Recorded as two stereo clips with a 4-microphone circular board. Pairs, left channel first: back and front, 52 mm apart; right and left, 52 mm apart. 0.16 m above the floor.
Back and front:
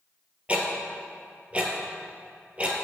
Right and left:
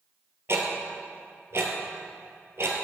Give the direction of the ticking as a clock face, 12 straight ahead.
10 o'clock.